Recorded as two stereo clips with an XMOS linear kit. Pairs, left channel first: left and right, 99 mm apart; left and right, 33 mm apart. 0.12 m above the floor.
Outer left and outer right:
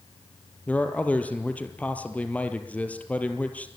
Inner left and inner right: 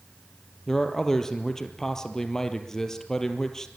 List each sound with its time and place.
0.7 s a man speaking: 15° left (ahead or behind), 2.5 m